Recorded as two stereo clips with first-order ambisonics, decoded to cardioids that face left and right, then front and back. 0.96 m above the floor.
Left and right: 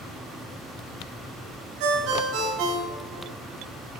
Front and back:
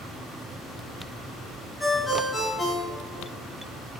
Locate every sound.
1.8 s a ringtone: 90° right, 1.6 m